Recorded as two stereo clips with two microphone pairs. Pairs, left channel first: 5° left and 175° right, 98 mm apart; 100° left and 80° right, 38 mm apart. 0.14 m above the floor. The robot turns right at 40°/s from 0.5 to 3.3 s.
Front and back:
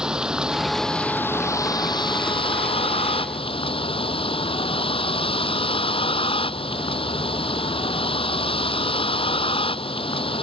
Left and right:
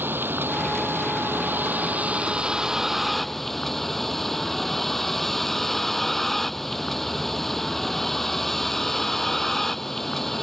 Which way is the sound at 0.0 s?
90° right.